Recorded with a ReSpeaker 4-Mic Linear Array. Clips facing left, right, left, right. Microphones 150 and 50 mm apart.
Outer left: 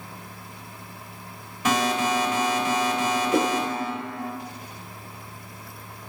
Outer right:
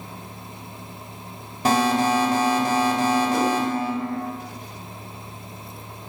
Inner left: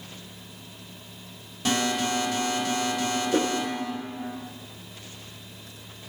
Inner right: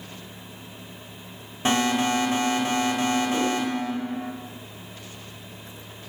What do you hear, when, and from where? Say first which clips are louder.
1.6 s an alarm: outer right 4 dB, inner right 3 dB; 35° right (ahead or behind), 1.7 m
3.3 s a whoosh: even, even; 55° left (ahead or behind), 1.4 m